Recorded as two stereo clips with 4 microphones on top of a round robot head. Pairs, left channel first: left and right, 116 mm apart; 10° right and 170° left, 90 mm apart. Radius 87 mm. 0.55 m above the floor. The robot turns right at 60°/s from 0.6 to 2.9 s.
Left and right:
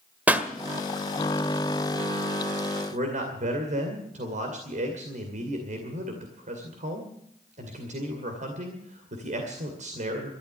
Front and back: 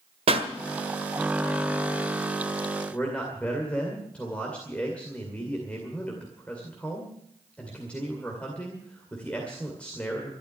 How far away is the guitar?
No guitar in this recording.